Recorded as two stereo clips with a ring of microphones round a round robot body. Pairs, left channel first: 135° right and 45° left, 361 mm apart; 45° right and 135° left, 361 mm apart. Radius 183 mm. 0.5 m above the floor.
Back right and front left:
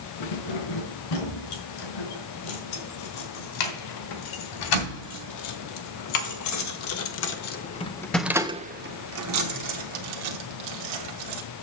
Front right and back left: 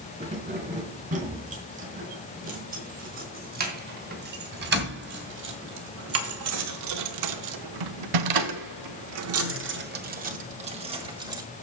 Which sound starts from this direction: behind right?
Keys jangling, at 0.2 s.